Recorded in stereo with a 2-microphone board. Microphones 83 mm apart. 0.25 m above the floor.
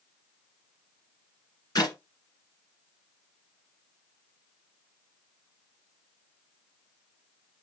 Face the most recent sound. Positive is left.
turn(degrees=50)  # may be behind; listen again after turning